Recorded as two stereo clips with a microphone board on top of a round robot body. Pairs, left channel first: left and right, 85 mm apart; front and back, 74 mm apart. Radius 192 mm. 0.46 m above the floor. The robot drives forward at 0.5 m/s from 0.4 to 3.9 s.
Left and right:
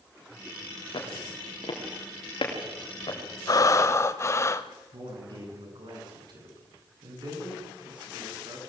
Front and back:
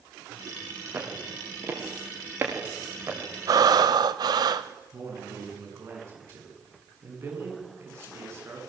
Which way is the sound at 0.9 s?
120° left.